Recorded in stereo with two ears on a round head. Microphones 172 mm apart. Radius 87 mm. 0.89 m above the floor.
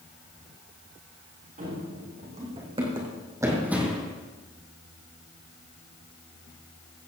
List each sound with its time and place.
1.6 s running footsteps: 40° right (ahead or behind), 4.5 m; by 4.1 s 5° left (ahead or behind), 2 m